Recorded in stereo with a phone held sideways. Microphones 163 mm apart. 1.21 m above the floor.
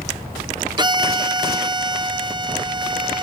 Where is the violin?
25° right (ahead or behind), 0.6 m.